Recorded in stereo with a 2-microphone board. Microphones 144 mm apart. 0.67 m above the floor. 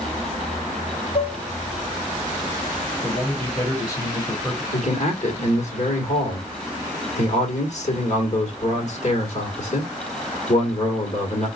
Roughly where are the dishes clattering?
Left.